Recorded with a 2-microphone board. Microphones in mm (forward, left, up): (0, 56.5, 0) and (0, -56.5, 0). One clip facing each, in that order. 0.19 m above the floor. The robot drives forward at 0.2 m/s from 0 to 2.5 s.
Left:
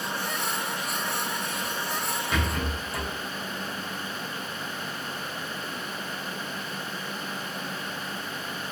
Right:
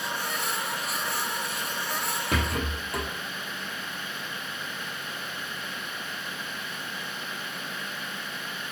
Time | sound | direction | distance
2.3 | a rattle | 65° right (ahead or behind) | 1.5 m